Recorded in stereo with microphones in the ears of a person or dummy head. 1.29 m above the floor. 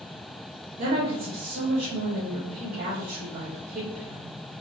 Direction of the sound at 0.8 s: 50° right (ahead or behind).